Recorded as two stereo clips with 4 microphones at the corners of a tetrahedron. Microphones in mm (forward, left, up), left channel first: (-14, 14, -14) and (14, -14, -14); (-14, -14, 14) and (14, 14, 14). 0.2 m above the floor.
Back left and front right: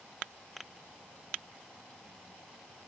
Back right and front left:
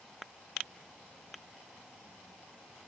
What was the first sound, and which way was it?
Only background noise.